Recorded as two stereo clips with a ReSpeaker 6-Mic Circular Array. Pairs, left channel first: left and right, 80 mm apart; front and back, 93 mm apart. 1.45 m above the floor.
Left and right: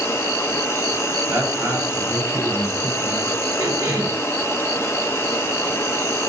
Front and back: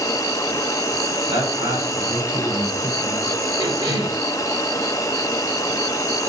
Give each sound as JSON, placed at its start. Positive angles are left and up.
{"t": 0.0, "sound": "an insect", "azimuth_deg": 40, "distance_m": 1.1}
{"t": 1.3, "sound": "a man speaking", "azimuth_deg": -165, "distance_m": 4.0}
{"t": 3.6, "sound": "a cough", "azimuth_deg": -155, "distance_m": 3.5}